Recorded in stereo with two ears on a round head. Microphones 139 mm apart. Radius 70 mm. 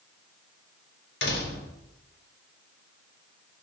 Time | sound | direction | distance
1.2 | a door slam | 75° left (ahead or behind) | 4 m